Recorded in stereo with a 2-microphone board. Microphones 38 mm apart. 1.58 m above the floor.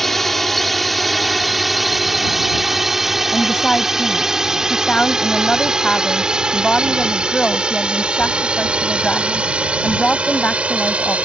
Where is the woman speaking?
30° left (ahead or behind).